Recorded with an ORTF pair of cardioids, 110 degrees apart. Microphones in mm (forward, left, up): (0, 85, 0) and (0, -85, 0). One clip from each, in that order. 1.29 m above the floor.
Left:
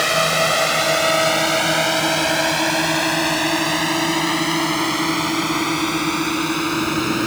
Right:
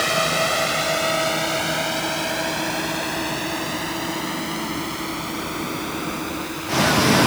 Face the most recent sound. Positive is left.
turn(degrees=60)